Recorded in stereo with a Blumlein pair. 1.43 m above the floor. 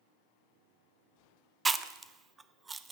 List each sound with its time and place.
1.6 s chewing: 15° right, 0.6 m